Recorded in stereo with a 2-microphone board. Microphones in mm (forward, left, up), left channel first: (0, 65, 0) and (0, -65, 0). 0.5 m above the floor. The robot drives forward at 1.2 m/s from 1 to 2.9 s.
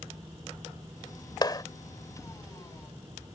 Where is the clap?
35° left (ahead or behind); by 1.6 s 30° left (ahead or behind).